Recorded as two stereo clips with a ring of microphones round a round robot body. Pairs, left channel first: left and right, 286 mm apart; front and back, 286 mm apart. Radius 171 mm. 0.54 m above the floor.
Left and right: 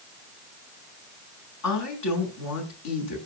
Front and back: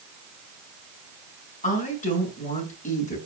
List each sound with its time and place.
1.6 s a woman speaking: 65° left, 6.5 m